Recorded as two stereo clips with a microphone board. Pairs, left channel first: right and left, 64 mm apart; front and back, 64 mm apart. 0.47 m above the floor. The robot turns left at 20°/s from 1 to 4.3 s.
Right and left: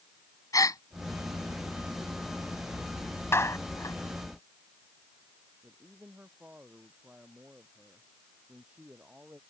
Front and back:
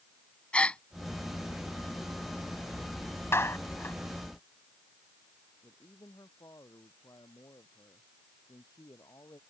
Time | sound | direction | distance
0.5 | a gasp | 75° right | ?
3.3 | a clap | 45° right | ?
5.6 | a man speaking | 25° left | ?